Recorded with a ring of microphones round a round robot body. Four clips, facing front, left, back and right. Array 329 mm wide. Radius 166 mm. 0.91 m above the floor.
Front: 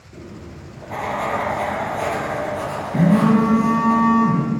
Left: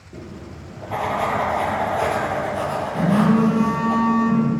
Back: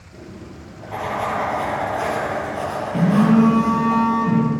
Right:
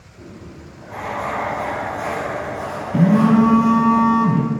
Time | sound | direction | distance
0.1 | writing | 70° left | 6.5 m
2.9 | a phone buzzing | 75° right | 3 m